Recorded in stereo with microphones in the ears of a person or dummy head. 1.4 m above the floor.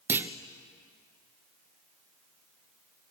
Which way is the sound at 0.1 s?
10° right (ahead or behind).